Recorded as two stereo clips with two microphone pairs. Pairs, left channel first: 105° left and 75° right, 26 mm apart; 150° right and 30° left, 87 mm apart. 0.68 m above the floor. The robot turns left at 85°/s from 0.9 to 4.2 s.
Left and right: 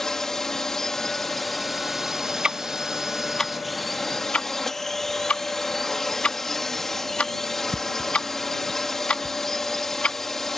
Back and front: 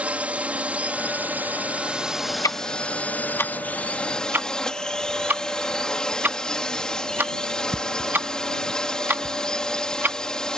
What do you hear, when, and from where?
0.0 s a drone: 70° left; by 10.6 s 150° left
2.4 s ticking: 120° right; by 10.2 s 90° left